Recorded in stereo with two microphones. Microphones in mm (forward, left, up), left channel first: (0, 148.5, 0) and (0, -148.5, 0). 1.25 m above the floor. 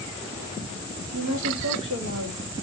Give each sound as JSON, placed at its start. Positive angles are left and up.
{"t": 1.1, "sound": "a woman speaking", "side_deg": -75, "distance_m": 2.0}